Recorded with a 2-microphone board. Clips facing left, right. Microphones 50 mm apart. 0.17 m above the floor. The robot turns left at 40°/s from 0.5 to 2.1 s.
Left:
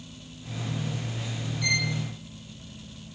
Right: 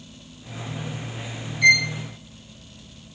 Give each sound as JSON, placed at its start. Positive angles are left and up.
{"t": 1.6, "sound": "a violin", "side_deg": -65, "distance_m": 1.0}